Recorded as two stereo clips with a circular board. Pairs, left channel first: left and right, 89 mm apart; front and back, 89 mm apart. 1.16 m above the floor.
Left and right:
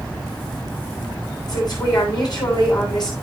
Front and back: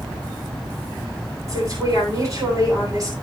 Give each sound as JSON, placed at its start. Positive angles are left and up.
{"t": 1.5, "sound": "a woman speaking", "azimuth_deg": 135, "distance_m": 9.0}